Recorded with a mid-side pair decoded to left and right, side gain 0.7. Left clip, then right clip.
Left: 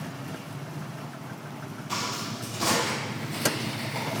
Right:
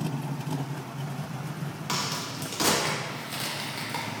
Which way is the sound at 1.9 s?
55° right.